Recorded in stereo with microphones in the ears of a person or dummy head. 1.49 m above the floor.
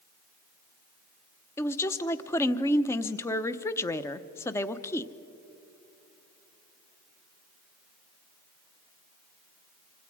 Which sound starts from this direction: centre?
A woman speaking, at 1.6 s.